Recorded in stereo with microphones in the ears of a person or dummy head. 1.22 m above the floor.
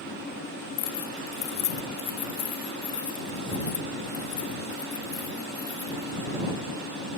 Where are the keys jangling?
50° left (ahead or behind); by 6.1 s 20° left (ahead or behind).